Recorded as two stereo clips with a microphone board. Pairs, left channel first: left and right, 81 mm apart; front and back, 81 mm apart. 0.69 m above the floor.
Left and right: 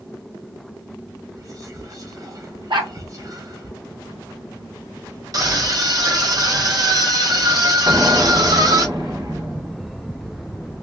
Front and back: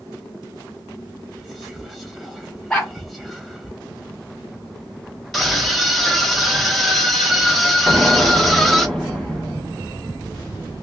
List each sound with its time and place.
1.3 s whispering: 90° right, 0.7 m
2.7 s a dog barking: 80° right, 1.3 m
5.3 s a scream: 90° right, 1.4 m
7.9 s an explosion: 85° right, 1.8 m